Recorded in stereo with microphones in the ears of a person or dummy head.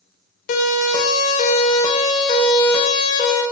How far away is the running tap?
No running tap in this recording.